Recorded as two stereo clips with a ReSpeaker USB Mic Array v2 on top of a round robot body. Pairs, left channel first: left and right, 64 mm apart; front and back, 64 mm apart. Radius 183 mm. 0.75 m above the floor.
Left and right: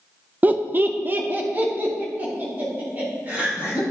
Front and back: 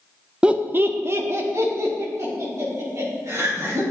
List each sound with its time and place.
0.4 s laughter: 120° right, 0.7 m; by 3.8 s 150° right, 4 m